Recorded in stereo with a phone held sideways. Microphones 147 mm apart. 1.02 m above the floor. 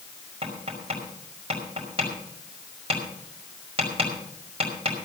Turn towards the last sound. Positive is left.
turn(degrees=-40)  # may be behind; listen again after turning